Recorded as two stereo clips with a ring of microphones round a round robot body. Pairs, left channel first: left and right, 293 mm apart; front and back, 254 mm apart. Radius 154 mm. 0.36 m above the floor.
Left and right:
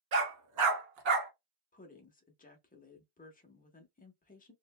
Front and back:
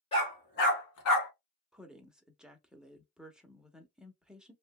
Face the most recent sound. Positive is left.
turn(degrees=95)